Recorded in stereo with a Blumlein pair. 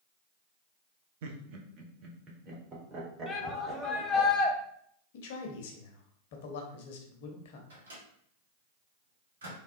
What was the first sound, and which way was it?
Laughter, 55° right.